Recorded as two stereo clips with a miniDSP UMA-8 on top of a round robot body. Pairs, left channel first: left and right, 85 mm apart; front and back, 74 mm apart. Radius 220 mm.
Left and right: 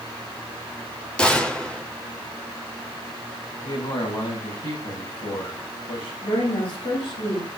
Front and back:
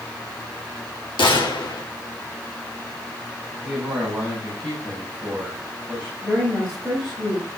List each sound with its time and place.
1.2 s a gunshot: 10° left, 1.4 m
3.6 s a man speaking: 100° left, 8.5 m
6.2 s a woman speaking: 105° left, 8.5 m